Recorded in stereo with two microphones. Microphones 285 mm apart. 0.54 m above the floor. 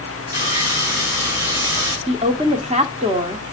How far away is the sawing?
About 5 m.